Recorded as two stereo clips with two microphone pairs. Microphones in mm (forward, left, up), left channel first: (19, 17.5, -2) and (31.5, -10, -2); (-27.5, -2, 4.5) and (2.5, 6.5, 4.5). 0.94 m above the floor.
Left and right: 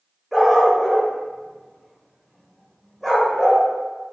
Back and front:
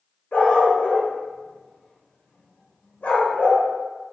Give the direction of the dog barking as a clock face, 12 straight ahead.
5 o'clock.